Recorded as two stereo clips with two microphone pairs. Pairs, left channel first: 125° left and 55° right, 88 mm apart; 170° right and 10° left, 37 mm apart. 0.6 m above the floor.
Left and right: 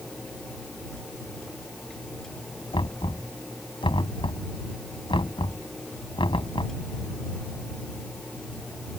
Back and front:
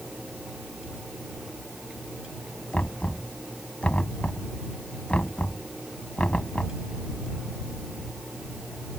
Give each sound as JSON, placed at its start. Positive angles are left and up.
{"t": 2.7, "sound": "knocking", "azimuth_deg": 135}